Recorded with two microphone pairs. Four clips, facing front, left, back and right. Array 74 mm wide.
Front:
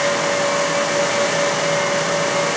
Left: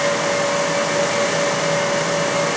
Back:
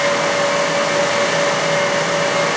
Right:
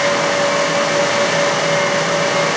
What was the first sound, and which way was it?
Only background noise.